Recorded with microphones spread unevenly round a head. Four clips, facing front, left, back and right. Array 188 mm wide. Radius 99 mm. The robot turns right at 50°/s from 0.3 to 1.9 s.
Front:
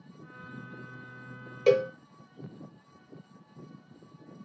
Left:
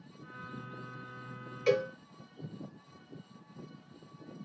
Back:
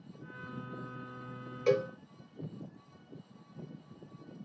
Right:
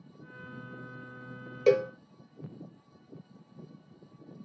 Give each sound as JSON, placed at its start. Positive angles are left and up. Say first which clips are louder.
{"t": 1.7, "sound": "a cowbell", "louder": "right 5 dB, front 6 dB", "azimuth_deg": -65, "distance_m": 0.7}